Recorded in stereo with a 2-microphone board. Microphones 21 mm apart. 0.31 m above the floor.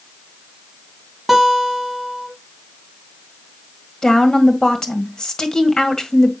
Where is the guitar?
5° left (ahead or behind), 2.5 m.